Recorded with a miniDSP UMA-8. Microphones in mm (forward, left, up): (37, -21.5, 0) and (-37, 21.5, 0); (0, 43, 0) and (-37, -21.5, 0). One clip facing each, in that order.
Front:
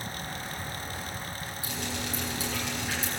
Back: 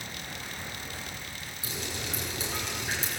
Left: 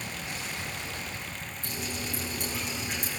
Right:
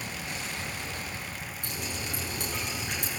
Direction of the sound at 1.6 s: 145° right.